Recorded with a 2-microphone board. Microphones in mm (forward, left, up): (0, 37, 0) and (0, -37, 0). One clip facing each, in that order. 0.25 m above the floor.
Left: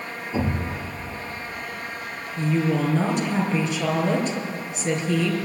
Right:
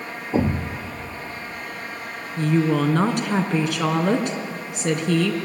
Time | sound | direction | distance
0.3 | a thud | 50° right (ahead or behind) | 2 m
2.4 | a woman speaking | 65° right (ahead or behind) | 3.5 m